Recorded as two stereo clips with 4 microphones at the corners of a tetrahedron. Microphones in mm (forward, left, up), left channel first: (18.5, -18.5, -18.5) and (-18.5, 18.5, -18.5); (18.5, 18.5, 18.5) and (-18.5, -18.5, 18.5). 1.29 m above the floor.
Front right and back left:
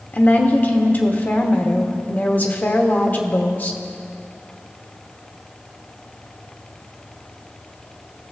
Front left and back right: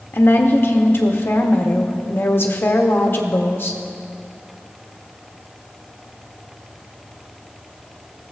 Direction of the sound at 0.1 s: 5° left.